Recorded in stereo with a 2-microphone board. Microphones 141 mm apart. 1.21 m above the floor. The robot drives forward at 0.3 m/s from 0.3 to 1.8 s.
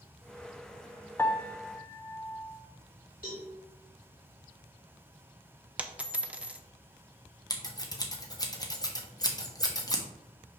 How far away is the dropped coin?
About 0.6 m.